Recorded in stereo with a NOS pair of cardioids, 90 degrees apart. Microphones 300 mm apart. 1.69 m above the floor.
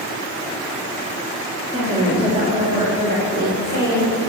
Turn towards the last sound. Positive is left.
turn(degrees=-35)